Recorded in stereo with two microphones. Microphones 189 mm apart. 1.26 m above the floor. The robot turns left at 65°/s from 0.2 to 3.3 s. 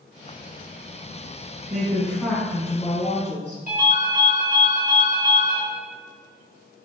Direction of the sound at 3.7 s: 45° right (ahead or behind).